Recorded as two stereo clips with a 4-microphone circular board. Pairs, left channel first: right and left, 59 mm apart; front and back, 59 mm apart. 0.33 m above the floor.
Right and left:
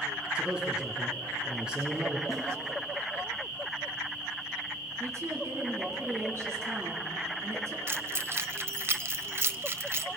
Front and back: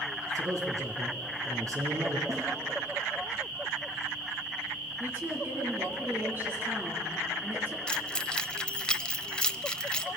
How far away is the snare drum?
About 8.5 m.